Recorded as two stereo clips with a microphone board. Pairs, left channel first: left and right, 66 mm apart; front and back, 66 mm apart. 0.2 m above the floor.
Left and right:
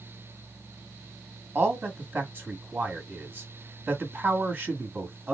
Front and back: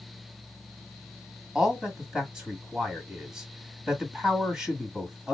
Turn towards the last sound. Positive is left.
turn(degrees=-120)